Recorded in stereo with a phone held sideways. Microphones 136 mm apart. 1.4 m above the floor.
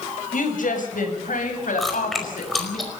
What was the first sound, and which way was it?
A woman speaking, 75° left (ahead or behind).